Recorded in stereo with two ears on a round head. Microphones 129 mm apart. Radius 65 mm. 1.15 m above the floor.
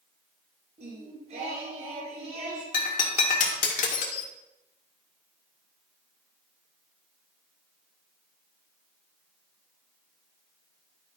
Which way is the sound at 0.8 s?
50° right (ahead or behind).